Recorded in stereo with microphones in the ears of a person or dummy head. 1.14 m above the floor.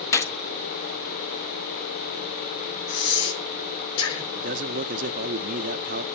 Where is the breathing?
75° left (ahead or behind), 5 m.